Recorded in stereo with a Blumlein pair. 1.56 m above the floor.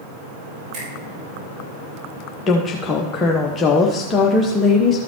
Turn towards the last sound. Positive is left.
turn(degrees=20)